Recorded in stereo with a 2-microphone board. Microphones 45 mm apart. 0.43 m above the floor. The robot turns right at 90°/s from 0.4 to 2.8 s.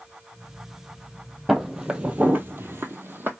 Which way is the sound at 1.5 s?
Centre (ahead or behind).